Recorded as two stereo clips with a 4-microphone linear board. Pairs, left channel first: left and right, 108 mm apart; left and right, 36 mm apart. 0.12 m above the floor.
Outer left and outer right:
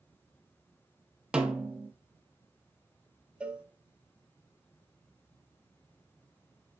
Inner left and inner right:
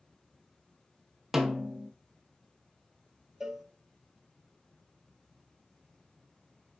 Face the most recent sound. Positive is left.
turn(degrees=-10)  # may be behind; listen again after turning